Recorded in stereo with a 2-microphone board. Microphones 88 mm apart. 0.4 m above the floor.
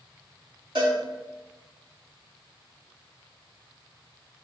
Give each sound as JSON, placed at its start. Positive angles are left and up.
{"t": 0.8, "sound": "a cowbell", "side_deg": -65, "distance_m": 3.0}